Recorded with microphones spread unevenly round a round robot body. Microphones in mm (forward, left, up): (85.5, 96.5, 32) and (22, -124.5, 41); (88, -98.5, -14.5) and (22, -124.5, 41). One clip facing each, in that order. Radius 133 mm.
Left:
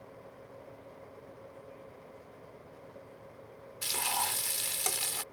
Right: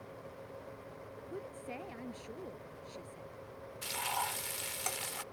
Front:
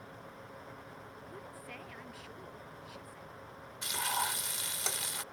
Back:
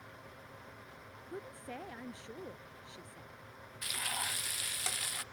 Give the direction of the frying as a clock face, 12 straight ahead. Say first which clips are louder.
Left 3 dB, front 6 dB; 10 o'clock.